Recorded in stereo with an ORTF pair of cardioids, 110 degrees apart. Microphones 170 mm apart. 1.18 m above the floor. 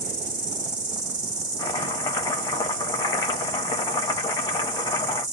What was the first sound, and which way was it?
An insect, 45° right.